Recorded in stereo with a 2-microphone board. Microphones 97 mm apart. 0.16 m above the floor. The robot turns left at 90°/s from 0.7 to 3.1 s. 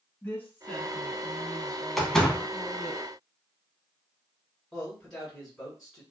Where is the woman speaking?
160° left, 1.3 m; by 3.0 s 45° right, 1.3 m.